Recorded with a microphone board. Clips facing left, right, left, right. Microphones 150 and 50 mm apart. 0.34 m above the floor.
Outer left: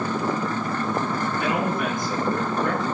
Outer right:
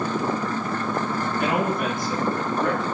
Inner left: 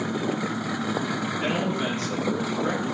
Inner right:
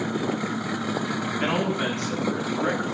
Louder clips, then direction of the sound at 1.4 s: Outer right 2 dB, inner right 2 dB; 65° right (ahead or behind).